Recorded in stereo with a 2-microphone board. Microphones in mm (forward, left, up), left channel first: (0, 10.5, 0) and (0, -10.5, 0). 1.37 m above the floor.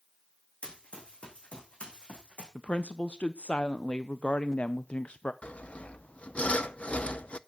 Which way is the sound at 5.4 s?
75° left (ahead or behind).